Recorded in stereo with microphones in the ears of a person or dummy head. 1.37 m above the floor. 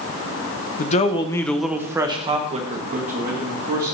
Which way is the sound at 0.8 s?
40° left (ahead or behind).